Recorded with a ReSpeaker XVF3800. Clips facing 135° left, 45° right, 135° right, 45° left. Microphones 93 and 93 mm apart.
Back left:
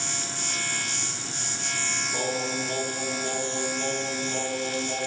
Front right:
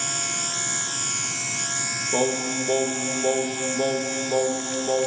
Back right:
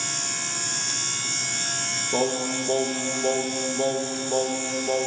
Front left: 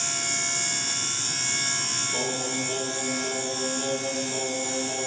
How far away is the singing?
About 0.9 m.